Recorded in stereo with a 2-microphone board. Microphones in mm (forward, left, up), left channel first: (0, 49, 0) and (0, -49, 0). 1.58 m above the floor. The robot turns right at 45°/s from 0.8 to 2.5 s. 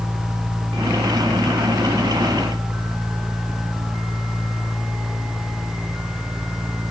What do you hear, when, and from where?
Only background noise.